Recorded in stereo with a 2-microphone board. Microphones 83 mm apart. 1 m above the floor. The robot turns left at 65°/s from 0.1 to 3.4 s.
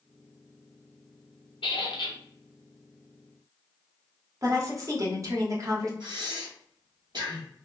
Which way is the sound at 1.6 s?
90° left.